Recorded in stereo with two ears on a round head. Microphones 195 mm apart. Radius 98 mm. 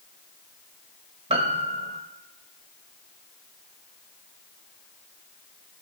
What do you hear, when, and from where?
1.3 s a piano: 25° right (ahead or behind), 1.0 m